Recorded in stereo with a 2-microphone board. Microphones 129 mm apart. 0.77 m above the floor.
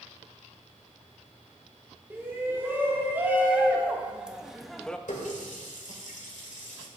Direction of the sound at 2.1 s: 15° right (ahead or behind).